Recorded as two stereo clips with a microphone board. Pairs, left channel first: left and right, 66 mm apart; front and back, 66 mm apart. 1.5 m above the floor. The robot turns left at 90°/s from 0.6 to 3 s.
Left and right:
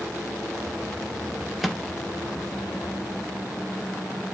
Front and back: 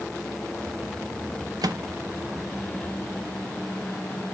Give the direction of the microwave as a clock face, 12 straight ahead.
6 o'clock.